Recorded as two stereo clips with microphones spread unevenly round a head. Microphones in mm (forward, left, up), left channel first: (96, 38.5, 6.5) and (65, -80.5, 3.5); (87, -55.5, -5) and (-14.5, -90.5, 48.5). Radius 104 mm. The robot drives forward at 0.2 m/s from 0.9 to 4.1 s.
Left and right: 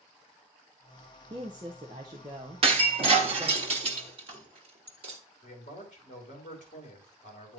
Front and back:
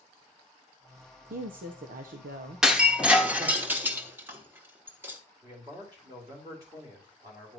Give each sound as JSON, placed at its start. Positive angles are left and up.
{"t": 1.3, "sound": "a woman speaking", "azimuth_deg": -165, "distance_m": 0.6}
{"t": 2.6, "sound": "breaking glass", "azimuth_deg": -115, "distance_m": 1.0}
{"t": 5.4, "sound": "a man speaking", "azimuth_deg": 130, "distance_m": 2.5}